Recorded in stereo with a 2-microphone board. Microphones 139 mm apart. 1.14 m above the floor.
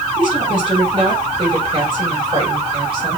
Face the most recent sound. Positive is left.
turn(degrees=-35)  # may be behind; listen again after turning